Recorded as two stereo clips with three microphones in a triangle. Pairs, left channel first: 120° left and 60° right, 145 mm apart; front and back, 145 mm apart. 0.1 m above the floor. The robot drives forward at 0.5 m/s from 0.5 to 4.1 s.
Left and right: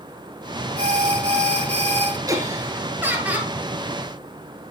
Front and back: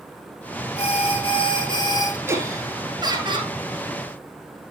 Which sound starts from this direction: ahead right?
An alarm, at 0.8 s.